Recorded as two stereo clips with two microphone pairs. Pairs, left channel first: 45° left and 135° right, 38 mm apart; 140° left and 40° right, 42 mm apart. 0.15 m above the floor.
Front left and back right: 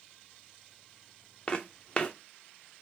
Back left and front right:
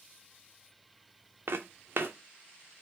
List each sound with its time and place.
1.5 s footsteps: 15° right, 0.5 m